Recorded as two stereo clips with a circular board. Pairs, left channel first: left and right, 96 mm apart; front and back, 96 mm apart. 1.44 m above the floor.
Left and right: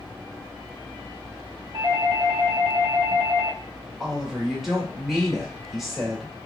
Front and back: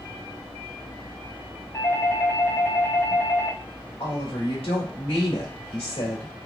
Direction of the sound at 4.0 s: 5° right.